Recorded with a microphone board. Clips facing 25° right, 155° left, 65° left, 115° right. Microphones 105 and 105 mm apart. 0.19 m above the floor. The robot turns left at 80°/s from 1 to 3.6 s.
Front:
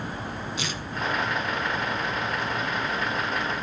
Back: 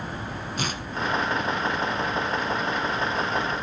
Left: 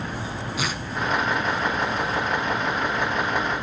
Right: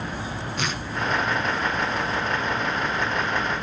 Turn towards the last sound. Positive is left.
turn(degrees=-60)